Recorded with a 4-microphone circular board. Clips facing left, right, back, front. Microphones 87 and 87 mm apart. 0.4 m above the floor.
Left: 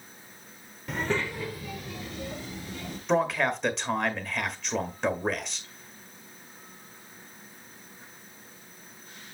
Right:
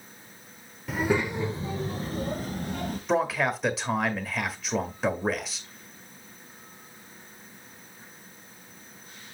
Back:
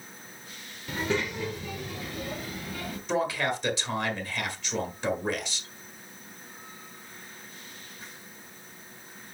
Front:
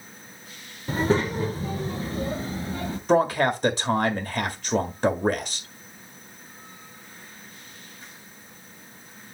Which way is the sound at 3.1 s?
5° right.